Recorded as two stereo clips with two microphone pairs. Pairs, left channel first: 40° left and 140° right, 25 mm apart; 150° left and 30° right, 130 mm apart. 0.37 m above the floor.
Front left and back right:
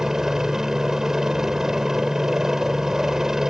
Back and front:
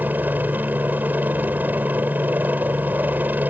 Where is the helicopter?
90° right.